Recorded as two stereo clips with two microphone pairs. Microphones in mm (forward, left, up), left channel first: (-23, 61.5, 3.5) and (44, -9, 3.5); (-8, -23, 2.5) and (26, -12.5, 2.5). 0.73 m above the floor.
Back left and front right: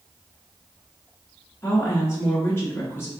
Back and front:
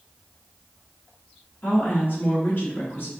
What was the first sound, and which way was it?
A woman speaking, 165° right.